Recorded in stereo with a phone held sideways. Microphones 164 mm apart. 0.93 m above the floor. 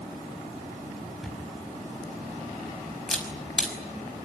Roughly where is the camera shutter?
Centre.